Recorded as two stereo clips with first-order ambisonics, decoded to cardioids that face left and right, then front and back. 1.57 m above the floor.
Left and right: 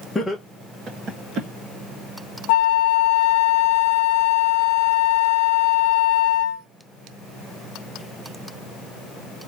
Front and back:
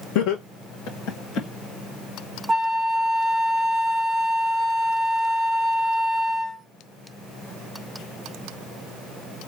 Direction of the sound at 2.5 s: 105° left.